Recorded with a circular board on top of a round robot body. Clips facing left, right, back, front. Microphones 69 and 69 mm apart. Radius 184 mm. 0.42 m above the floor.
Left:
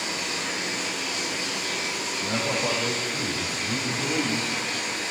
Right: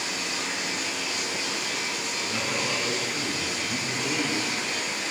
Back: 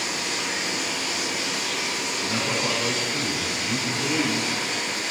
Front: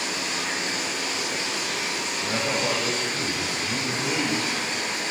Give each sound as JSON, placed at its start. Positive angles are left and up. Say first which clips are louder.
{"t": 0.0, "sound": "running water", "louder": "left 1 dB, even", "azimuth_deg": 50, "distance_m": 9.0}
{"t": 2.2, "sound": "a man speaking", "louder": "left 4 dB, front 1 dB", "azimuth_deg": 60, "distance_m": 3.5}